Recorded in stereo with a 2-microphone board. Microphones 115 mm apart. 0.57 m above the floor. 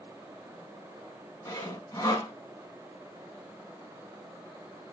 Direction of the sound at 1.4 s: 25° left (ahead or behind).